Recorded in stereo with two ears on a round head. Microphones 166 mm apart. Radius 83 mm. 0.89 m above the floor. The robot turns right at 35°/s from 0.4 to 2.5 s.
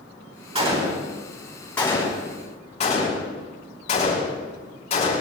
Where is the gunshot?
35° right (ahead or behind), 5 m; by 5.2 s 35° left (ahead or behind), 5 m.